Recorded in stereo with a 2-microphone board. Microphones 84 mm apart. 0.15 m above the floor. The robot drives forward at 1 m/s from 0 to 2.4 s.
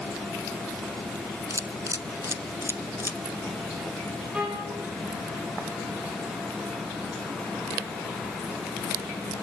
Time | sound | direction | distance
1.5 | a camera shutter | 45° right (ahead or behind) | 1.0 m
4.3 | a violin | 10° right (ahead or behind) | 7.5 m